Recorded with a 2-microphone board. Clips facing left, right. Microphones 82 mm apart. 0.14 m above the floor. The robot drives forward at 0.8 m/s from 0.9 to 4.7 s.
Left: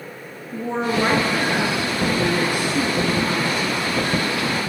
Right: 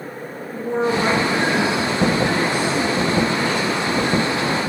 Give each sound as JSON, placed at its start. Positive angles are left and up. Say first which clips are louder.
{"t": 0.5, "sound": "a woman speaking", "louder": "right 2 dB", "side_deg": 25, "distance_m": 1.9}